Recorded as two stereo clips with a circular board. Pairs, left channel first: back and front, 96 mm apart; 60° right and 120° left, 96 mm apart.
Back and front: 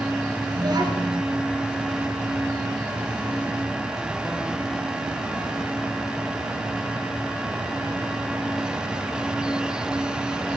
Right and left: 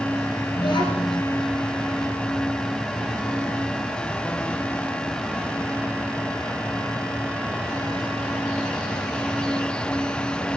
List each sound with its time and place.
0.6 s a child speaking: 40° right, 2.5 m